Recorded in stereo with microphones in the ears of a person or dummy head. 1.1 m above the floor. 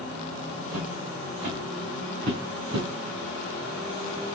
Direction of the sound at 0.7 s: 75° right (ahead or behind).